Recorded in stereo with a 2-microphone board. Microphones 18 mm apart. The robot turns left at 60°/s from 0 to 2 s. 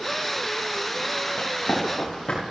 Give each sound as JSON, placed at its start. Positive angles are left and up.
{"t": 1.4, "sound": "running footsteps", "side_deg": 75, "distance_m": 4.0}